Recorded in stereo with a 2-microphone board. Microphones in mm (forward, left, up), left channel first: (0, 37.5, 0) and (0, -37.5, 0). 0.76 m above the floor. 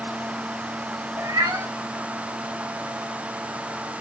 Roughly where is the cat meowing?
Right.